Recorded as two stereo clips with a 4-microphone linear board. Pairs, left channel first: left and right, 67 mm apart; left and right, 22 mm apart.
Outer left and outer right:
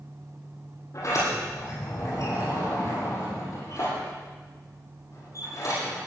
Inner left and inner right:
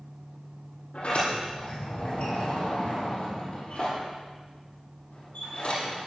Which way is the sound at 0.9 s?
55° left (ahead or behind).